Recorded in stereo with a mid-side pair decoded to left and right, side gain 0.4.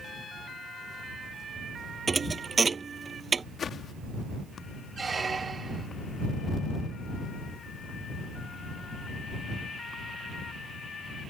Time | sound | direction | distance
2.1 | a thud | 40° right | ?
3.6 | a whoosh | 55° left | ?
5.0 | a squeak | 40° right | ?